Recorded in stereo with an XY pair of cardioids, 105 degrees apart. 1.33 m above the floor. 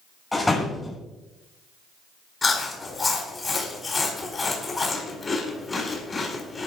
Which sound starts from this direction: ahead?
A door slam, at 0.3 s.